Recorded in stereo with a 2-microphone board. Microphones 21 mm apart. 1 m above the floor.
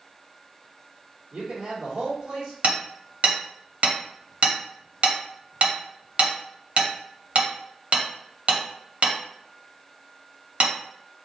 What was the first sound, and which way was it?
A man speaking, 75° right (ahead or behind).